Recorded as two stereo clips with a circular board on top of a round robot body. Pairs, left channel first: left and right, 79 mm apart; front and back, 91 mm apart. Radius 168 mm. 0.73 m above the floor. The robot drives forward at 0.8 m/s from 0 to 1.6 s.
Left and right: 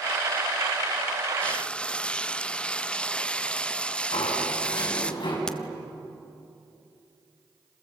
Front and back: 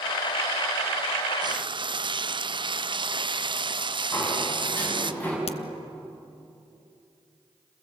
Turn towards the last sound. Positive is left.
turn(degrees=10)